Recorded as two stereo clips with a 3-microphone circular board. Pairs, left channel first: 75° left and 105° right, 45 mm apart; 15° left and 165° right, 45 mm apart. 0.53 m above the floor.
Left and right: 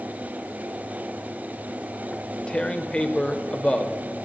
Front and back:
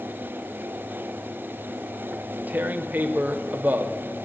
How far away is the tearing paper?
About 0.6 m.